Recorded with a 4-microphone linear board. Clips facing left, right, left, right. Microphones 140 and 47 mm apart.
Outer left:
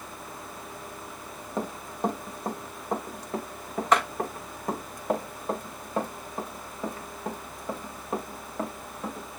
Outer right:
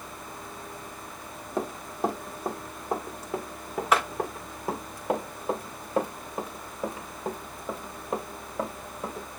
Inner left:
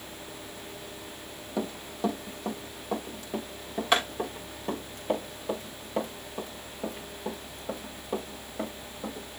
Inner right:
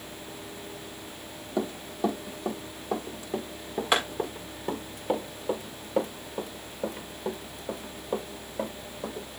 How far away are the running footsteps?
About 2.5 m.